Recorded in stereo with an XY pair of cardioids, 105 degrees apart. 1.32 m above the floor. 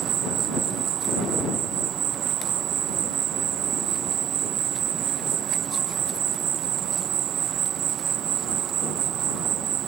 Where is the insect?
65° right.